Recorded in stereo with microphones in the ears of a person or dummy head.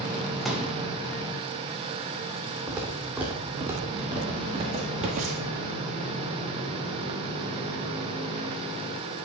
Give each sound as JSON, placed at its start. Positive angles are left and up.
{"t": 0.5, "sound": "a pop", "side_deg": 0, "distance_m": 1.7}
{"t": 2.7, "sound": "footsteps", "side_deg": 0, "distance_m": 3.0}